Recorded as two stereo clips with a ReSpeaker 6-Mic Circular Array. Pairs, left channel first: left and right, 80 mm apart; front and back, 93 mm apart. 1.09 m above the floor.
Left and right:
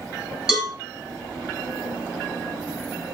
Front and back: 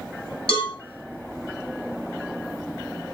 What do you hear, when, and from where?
0.5 s a cowbell: 10° right, 7 m